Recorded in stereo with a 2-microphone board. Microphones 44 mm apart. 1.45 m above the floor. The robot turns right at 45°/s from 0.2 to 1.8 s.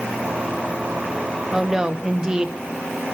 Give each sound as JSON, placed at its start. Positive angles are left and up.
{"t": 1.5, "sound": "a woman speaking", "side_deg": -5, "distance_m": 0.8}